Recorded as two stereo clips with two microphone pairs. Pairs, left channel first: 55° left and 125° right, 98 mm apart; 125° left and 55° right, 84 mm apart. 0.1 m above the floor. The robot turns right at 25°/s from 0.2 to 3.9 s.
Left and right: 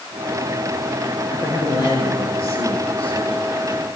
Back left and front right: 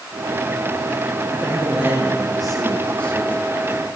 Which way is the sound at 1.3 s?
10° left.